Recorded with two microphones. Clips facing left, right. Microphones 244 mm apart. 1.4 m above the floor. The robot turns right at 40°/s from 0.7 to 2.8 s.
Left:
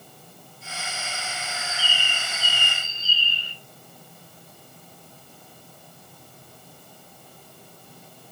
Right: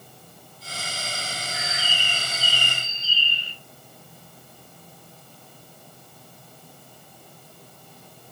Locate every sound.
1.5 s a bird: 75° right, 1.4 m; by 3.5 s 25° right, 1.4 m